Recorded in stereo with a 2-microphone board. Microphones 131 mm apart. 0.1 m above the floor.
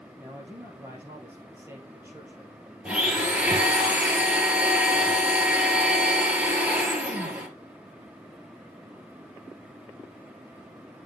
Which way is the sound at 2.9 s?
10° right (ahead or behind).